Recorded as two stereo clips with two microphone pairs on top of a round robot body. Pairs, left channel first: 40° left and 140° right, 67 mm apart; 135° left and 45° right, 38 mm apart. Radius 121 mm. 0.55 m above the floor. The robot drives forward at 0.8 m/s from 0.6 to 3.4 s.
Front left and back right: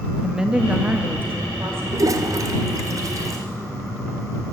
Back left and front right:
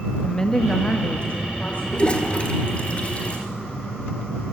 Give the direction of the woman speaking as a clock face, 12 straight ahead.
6 o'clock.